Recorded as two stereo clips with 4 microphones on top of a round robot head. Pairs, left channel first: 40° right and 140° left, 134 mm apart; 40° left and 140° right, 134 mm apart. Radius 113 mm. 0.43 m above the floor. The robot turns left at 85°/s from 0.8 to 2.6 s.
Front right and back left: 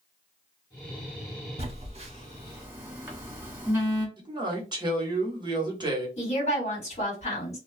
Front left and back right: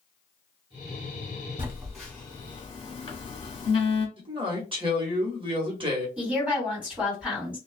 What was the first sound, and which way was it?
A phone buzzing, 160° left.